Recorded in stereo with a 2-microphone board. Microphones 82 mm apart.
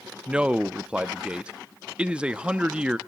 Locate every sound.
0.3 s a man speaking: 15° right (ahead or behind), 0.6 m